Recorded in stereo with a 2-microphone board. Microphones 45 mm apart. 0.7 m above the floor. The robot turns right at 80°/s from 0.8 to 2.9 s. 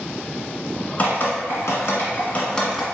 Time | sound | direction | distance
1.0 | dripping | 35° left (ahead or behind) | 1.6 m